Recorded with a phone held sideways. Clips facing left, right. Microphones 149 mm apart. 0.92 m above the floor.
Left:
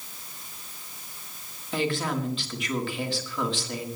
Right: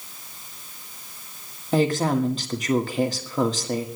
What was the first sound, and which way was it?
A woman speaking, 40° right (ahead or behind).